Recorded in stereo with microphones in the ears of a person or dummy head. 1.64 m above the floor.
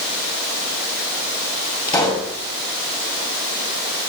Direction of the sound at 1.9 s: 20° left (ahead or behind).